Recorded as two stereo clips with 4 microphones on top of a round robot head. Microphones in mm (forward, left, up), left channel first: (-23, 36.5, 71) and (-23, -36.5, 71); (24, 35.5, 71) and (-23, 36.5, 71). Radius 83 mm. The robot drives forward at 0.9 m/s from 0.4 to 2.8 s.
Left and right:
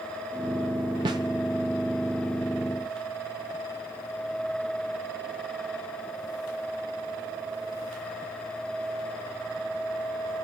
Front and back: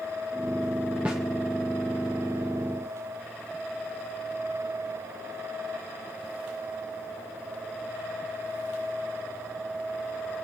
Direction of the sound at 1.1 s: 105° right.